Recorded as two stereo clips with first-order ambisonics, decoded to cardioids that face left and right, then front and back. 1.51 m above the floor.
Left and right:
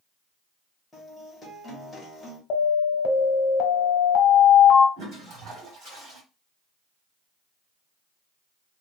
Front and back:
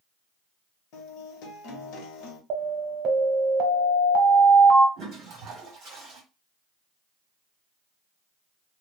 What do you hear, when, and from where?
0.9 s a guitar: 10° left, 1.0 m
2.5 s an alarm: 135° left, 0.8 m
5.0 s a toilet flushing: 135° right, 1.6 m